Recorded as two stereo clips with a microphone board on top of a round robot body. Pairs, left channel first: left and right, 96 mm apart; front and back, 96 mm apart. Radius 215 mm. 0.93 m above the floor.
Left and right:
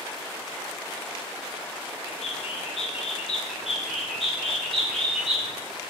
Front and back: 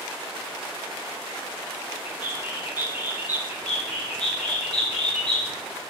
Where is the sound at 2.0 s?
110° left, 1.4 m.